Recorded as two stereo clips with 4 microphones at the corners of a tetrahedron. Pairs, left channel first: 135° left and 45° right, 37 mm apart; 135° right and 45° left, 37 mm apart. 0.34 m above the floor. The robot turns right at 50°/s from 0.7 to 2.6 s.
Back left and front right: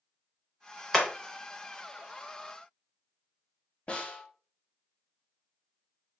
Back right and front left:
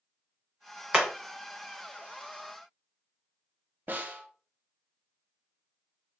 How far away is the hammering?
About 0.7 m.